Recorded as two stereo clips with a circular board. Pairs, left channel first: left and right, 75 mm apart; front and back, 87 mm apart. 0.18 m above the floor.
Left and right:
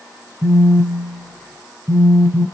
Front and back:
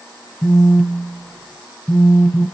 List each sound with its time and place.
0.4 s a phone buzzing: 75° right, 1.2 m